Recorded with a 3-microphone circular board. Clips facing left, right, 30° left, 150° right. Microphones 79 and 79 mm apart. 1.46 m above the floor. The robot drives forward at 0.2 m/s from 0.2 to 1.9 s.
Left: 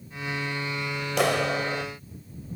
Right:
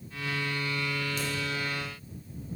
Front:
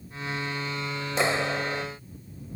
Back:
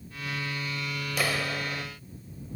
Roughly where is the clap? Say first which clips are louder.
Left 9 dB, front 5 dB; left.